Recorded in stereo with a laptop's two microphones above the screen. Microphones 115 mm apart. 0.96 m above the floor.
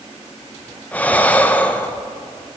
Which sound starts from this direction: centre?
Breathing, at 0.9 s.